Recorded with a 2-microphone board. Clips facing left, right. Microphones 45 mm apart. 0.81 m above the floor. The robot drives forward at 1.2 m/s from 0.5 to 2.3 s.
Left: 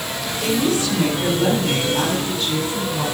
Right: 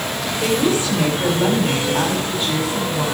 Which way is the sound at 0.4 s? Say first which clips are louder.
Right 1 dB; 25° right (ahead or behind).